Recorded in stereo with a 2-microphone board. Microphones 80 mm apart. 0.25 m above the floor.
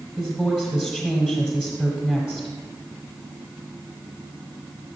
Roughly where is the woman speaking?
Centre.